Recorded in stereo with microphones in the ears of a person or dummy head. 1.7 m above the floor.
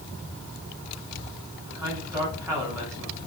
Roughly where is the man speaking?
Right.